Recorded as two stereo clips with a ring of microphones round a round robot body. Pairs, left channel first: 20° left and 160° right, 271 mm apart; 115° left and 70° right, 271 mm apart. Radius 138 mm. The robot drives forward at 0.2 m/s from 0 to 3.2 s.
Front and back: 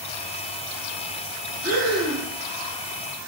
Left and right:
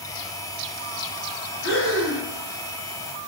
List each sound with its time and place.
1.6 s breathing: 160° left, 1.3 m; by 2.3 s 165° left, 1.4 m